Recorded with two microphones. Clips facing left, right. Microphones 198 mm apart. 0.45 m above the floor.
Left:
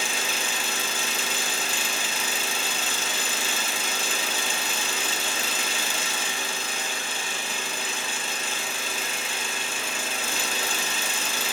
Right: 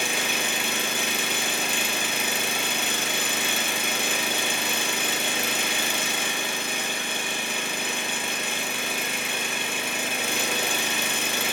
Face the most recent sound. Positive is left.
turn(degrees=-65)  # may be behind; listen again after turning